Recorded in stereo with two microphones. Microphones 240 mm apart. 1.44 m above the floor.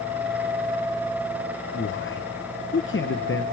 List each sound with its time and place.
1.7 s a man speaking: 55° left (ahead or behind), 0.8 m